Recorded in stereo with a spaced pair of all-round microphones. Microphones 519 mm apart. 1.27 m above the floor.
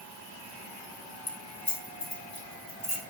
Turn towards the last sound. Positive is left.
turn(degrees=75)  # may be behind; listen again after turning